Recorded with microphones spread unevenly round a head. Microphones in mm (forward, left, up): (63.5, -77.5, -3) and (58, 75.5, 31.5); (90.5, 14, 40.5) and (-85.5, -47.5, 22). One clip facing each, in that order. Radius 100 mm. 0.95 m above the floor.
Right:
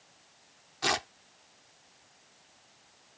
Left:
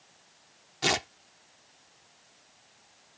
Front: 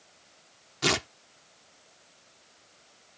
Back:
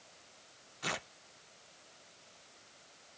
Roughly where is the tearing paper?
Ahead left.